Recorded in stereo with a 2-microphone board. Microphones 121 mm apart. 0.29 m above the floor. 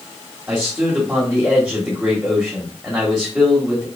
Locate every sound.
0.5 s a man speaking: 5° right (ahead or behind), 0.9 m